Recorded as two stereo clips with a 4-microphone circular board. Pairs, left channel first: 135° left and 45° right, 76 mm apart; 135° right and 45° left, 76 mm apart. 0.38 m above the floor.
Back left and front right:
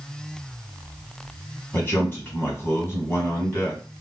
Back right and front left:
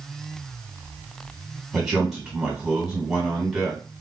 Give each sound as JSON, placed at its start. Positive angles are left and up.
{"t": 1.7, "sound": "a man speaking", "azimuth_deg": 125, "distance_m": 1.5}